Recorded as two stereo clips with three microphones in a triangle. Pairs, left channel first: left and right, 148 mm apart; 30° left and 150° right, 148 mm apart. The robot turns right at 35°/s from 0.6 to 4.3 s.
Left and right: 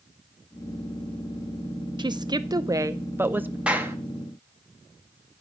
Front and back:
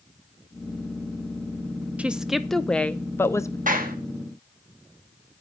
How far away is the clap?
About 1.0 m.